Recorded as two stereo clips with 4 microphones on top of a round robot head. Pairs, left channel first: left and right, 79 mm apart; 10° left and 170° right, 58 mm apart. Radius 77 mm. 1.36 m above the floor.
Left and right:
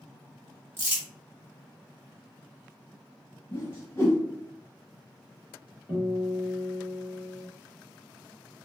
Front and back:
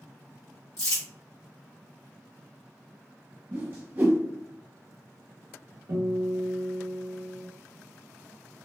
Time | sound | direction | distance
0.8 | crumpling | 30° right | 1.2 m
3.5 | a whoosh | 150° left | 0.5 m
5.9 | a guitar | 175° right | 1.6 m